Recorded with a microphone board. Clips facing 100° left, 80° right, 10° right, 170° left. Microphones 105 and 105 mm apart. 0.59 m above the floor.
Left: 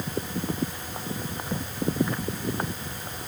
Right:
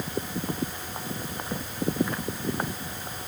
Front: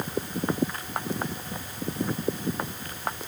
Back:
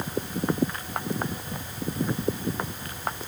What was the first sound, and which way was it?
Only background noise.